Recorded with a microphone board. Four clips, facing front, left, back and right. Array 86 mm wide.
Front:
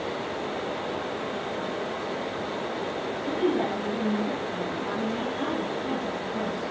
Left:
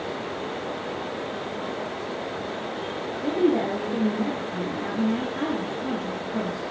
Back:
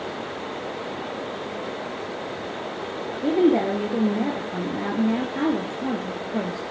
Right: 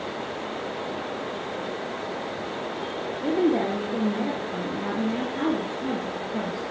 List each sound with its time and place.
3.2 s a woman speaking: 170° right, 2.0 m